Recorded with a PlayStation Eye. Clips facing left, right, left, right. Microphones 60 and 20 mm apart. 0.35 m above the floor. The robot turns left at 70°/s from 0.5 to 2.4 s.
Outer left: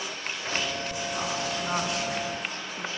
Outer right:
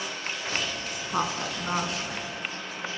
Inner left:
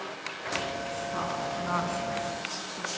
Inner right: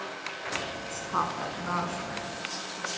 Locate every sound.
0.9 s a woman speaking: 60° right (ahead or behind), 3 m; by 2.9 s 35° left (ahead or behind), 3 m